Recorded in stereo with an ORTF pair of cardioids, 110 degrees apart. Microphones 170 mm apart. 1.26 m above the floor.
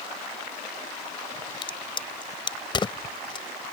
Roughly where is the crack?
Ahead left.